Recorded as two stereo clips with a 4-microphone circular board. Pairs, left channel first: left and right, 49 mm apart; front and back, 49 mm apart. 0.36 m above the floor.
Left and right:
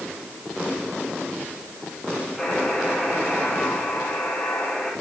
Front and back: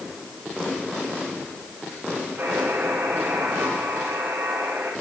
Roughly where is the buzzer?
Behind.